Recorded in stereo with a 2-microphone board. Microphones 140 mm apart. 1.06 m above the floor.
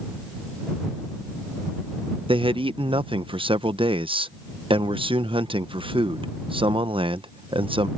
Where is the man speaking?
40° right (ahead or behind).